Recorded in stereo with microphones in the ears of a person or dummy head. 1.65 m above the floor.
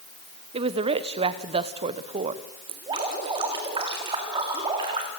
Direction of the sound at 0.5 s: 30° right (ahead or behind).